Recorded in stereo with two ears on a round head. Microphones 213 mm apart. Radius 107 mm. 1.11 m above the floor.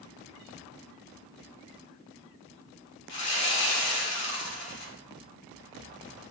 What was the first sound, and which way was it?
Sawing, 55° left (ahead or behind).